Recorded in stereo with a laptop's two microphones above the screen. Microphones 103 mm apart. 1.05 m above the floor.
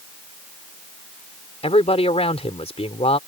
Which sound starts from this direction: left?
A man speaking, at 1.6 s.